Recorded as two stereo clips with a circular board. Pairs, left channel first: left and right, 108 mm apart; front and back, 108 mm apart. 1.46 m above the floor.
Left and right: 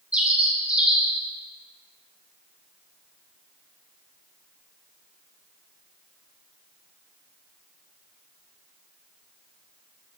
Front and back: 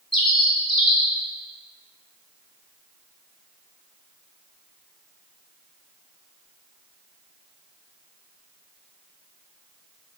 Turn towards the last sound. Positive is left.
turn(degrees=-15)